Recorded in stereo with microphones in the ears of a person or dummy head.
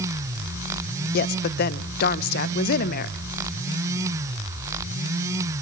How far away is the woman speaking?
About 0.8 m.